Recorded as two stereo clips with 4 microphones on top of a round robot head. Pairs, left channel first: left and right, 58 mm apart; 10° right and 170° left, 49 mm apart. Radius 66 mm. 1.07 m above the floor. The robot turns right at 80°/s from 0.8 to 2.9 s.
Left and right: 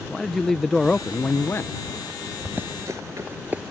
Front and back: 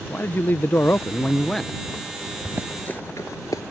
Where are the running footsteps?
145° right; by 3.6 s 15° right.